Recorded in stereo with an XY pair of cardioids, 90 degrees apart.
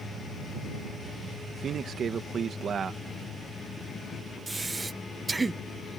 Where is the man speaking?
60° right.